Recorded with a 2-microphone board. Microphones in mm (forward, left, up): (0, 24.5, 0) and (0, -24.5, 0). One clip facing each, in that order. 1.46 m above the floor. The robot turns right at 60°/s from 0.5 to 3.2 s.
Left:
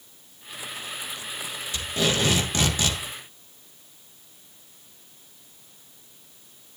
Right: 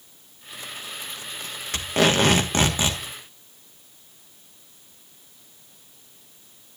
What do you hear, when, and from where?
1.7 s tape being pulled: 95° right, 1.4 m; by 3.0 s 20° right, 1.4 m